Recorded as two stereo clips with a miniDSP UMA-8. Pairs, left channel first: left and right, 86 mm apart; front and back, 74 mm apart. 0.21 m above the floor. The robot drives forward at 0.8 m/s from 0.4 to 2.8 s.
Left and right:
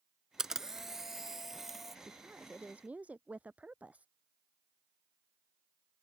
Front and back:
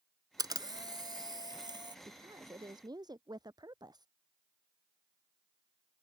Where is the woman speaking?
160° right; by 4.1 s 165° right.